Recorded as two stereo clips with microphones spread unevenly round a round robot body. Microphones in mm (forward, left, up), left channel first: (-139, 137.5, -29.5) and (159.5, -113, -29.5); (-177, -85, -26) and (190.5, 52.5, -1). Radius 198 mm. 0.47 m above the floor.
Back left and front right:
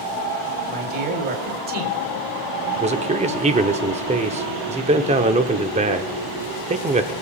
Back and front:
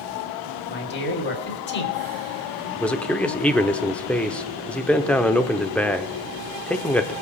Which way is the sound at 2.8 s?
85° right.